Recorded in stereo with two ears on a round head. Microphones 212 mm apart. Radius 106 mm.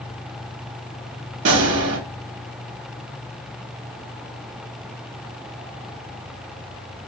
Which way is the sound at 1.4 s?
55° right (ahead or behind).